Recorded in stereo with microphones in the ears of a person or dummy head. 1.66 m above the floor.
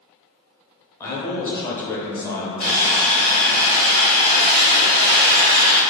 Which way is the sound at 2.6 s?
30° left (ahead or behind).